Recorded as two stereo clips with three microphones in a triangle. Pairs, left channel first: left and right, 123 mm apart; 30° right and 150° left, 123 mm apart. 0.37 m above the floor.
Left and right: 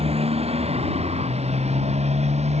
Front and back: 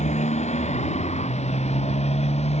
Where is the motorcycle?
55° right; by 2.6 s 60° right.